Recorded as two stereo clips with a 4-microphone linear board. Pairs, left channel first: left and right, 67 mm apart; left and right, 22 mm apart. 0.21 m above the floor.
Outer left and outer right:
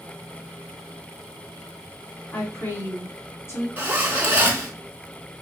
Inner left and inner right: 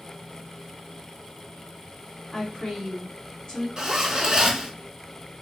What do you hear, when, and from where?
2.3 s a woman speaking: 40° left (ahead or behind), 1.9 m
3.8 s a zipper: 30° right (ahead or behind), 0.8 m